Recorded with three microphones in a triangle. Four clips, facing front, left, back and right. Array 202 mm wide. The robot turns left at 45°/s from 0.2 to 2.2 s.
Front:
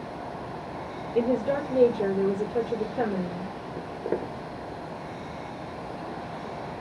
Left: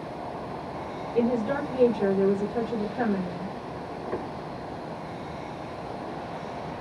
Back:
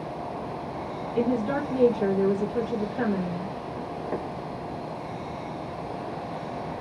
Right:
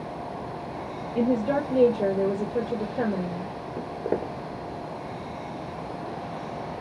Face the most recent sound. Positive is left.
turn(degrees=-70)